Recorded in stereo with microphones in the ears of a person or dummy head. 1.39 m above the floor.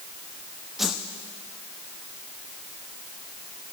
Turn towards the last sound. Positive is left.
turn(degrees=5)  # may be behind; listen again after turning